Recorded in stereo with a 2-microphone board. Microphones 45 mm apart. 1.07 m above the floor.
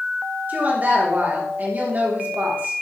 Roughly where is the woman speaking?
Right.